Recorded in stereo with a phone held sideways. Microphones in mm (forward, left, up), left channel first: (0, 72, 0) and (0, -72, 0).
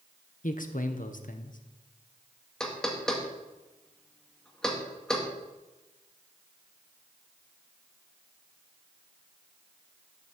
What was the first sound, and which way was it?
A man speaking, 65° left (ahead or behind).